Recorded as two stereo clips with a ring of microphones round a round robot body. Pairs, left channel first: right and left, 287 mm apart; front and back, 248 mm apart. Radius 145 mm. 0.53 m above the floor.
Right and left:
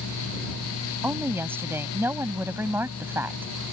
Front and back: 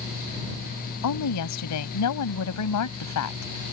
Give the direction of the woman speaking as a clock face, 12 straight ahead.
12 o'clock.